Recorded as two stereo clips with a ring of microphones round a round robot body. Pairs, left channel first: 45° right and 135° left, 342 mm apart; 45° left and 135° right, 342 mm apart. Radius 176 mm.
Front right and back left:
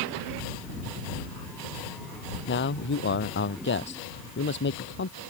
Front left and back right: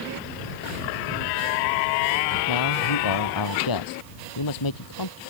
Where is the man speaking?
15° left.